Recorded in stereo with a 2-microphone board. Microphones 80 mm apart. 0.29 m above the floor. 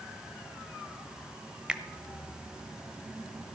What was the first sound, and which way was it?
A finger snap, 10° right (ahead or behind).